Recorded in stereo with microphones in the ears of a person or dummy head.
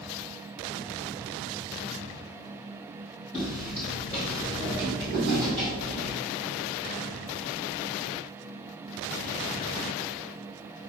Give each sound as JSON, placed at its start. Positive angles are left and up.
{"t": 3.3, "sound": "footsteps", "side_deg": 10, "distance_m": 1.5}